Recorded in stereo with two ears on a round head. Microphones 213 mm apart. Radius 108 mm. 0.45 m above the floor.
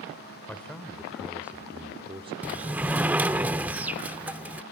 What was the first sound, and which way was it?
A man speaking, 5° left (ahead or behind).